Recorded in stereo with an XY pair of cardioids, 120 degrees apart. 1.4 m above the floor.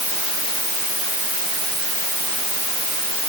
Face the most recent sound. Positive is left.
No sound to turn to.